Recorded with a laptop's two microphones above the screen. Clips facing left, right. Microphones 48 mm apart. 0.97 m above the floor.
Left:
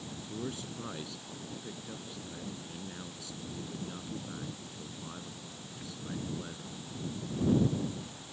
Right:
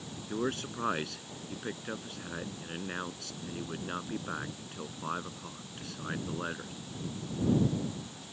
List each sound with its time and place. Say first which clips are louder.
0.3 s a man speaking: right 7 dB; 70° right (ahead or behind)